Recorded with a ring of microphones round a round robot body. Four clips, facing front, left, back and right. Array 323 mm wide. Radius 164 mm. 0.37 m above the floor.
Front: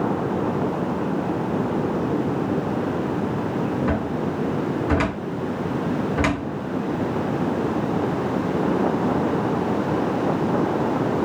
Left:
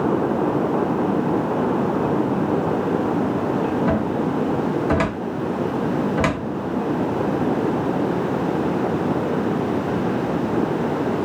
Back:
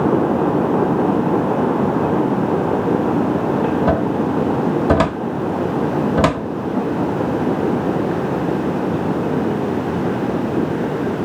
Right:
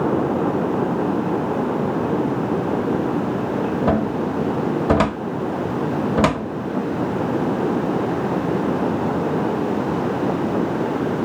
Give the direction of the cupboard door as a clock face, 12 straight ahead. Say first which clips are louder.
Right 1 dB, back 7 dB; 5 o'clock.